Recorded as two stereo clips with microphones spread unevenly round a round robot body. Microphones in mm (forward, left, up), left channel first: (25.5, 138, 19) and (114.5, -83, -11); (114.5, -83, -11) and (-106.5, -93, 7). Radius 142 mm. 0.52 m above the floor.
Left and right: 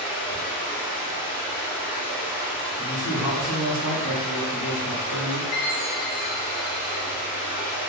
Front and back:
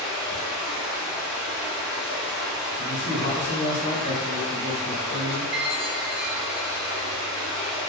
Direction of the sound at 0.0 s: 85° right.